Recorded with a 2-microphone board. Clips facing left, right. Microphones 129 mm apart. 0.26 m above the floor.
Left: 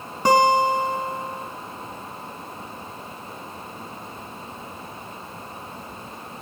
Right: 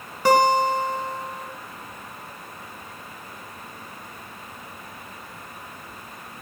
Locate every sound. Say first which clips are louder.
0.2 s a guitar: left 1 dB; 20° left (ahead or behind), 3.5 m